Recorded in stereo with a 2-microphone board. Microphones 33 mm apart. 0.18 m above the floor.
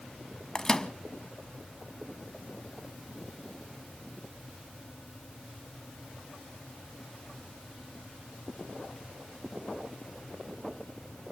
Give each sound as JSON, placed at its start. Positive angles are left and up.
{"t": 0.6, "sound": "a microwave", "side_deg": 20, "distance_m": 0.9}